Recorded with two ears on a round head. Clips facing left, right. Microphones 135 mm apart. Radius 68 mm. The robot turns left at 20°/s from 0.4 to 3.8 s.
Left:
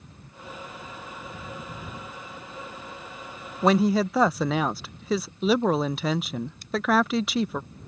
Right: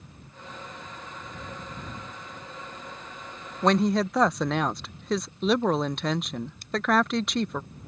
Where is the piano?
I don't hear a piano.